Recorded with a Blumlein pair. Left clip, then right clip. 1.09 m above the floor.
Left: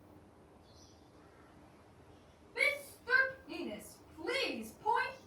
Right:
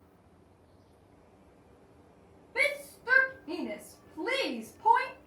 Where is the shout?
60° right, 2 m.